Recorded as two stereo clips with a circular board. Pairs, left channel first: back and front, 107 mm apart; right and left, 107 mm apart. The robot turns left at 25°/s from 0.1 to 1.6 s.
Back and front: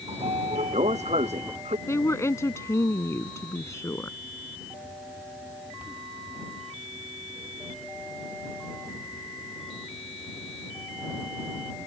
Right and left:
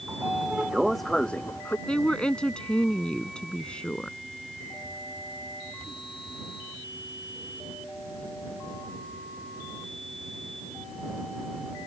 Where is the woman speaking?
160° right.